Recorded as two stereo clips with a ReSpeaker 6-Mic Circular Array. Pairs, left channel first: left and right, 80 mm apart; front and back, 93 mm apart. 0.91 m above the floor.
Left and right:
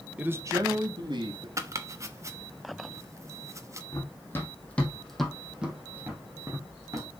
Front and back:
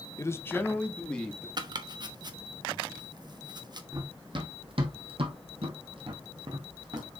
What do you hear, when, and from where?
0.2 s a man speaking: 30° right, 0.9 m; by 1.5 s 85° right, 2 m
1.6 s chopping: 140° right, 0.9 m
3.9 s running footsteps: 140° left, 2.5 m; by 7.1 s 135° right, 3 m